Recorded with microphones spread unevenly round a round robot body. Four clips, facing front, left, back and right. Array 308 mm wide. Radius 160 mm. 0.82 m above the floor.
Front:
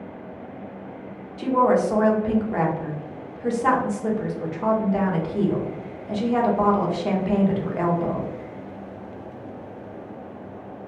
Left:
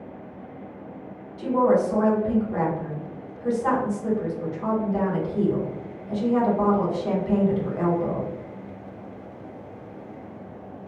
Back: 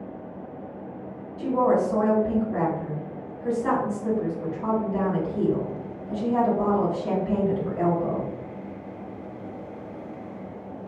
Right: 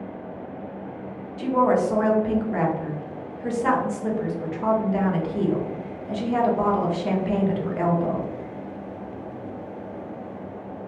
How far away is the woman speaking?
About 0.9 m.